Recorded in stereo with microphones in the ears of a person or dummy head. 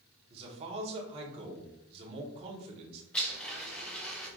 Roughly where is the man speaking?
Right.